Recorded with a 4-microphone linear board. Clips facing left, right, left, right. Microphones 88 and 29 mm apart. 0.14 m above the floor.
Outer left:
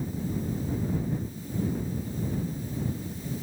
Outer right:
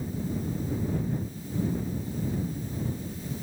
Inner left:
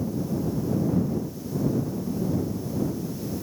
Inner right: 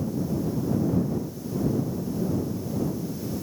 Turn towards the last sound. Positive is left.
No sound to turn to.